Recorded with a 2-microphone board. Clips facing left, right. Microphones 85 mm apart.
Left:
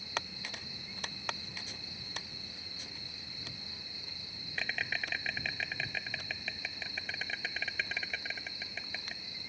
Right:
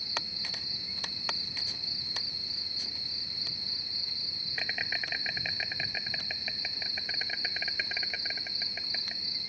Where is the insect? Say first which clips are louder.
Even; 5° right (ahead or behind).